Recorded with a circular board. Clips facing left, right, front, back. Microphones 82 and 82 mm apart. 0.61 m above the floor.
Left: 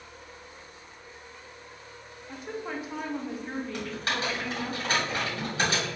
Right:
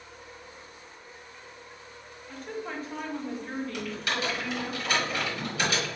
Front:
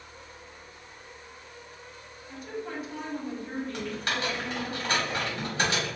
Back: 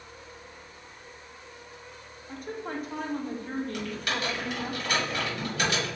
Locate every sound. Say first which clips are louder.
2.3 s a woman speaking: left 1 dB, back 1 dB; 165° left, 0.8 m
3.7 s typing on a keyboard: left 1 dB, even; 50° left, 2.0 m